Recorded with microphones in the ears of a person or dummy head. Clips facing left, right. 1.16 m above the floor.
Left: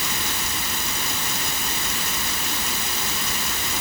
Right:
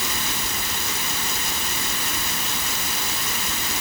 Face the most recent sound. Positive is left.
No sound to turn to.